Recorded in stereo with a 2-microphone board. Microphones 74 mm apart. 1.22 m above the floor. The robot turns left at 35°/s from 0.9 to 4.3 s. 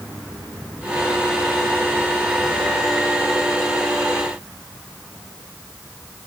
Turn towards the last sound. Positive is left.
No sound to turn to.